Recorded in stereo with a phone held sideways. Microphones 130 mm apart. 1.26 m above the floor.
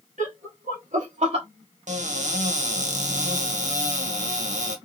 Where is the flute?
I don't hear a flute.